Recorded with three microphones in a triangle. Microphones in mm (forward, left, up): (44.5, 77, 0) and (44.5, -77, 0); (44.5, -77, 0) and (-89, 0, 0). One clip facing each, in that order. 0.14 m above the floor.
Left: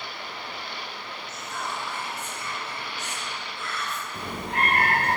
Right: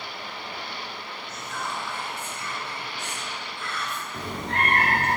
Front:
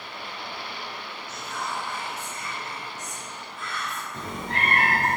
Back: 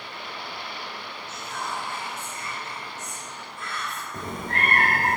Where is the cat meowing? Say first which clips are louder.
Right 1 dB, back 1 dB; 170° left, 1.2 m.